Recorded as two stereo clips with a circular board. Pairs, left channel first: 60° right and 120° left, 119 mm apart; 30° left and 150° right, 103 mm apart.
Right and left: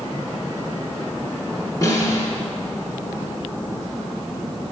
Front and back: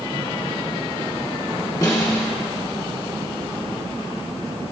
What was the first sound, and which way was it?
A snare drum, 15° right.